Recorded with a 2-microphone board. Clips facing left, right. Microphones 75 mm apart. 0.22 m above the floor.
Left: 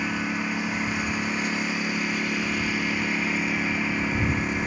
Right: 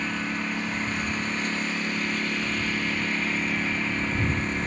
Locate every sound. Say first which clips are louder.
0.0 s a lawn mower: left 2 dB; 10° left (ahead or behind)